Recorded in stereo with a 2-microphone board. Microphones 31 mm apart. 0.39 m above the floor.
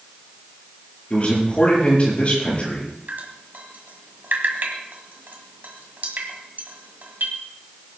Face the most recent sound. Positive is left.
turn(degrees=-70)  # may be behind; listen again after turning